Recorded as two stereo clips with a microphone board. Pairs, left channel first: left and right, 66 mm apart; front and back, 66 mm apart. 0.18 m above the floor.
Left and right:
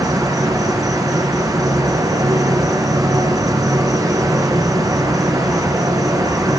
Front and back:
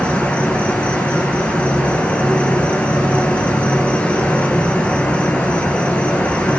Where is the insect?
70° right, 2 m.